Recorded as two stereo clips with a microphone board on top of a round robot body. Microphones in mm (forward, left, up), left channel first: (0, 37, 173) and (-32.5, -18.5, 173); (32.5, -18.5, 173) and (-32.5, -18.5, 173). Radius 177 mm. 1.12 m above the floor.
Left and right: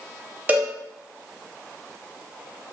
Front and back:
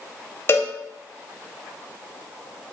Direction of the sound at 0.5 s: 55° right.